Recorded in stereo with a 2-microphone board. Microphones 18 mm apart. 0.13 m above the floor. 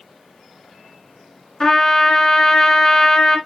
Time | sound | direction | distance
1.6 | a trumpet | 30° left (ahead or behind) | 1.4 m